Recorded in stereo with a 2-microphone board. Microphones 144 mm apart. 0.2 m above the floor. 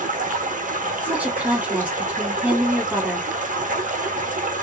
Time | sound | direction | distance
0.0 | running water | 75° right (ahead or behind) | 0.9 m
1.0 | a woman speaking | 10° right (ahead or behind) | 1.3 m